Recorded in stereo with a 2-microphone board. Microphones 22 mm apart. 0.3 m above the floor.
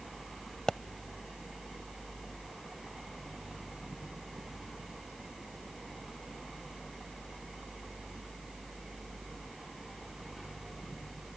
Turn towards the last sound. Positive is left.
turn(degrees=35)  # may be behind; listen again after turning